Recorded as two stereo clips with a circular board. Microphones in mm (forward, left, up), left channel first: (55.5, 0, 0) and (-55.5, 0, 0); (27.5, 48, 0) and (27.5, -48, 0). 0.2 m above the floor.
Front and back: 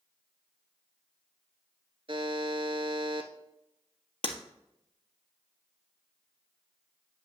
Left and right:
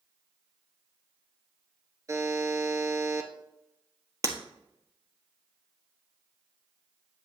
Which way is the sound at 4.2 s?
40° right.